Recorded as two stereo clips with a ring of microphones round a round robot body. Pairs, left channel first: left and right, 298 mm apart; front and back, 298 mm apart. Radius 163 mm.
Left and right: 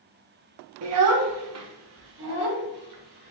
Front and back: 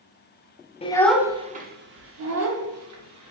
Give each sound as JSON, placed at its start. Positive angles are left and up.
{"t": 0.8, "sound": "a child speaking", "azimuth_deg": -65, "distance_m": 0.6}